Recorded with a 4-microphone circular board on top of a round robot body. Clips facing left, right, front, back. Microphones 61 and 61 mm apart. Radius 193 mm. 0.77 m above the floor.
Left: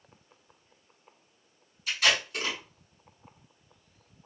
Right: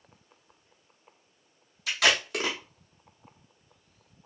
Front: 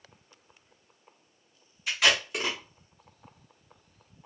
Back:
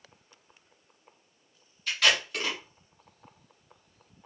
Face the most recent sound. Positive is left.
turn(degrees=-80)